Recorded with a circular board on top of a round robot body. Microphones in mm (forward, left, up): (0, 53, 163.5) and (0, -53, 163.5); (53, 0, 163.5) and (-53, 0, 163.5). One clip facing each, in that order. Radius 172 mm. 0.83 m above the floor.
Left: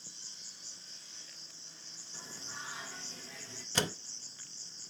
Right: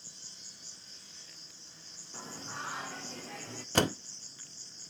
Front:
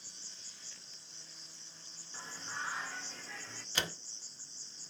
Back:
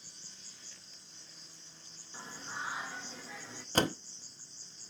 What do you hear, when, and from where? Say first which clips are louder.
0.0 s an insect: right 1 dB, back 1 dB; 140° right, 2 m
2.1 s singing: right 6 dB, back 1 dB; 100° right, 1.2 m
3.8 s a door slam: right 7 dB, back 10 dB; 130° right, 0.7 m